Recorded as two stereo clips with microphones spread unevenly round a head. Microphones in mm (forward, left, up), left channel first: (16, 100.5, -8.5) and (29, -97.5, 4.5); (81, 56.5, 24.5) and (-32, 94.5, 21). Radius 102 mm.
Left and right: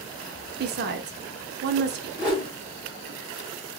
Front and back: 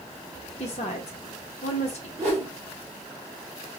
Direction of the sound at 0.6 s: 55° right.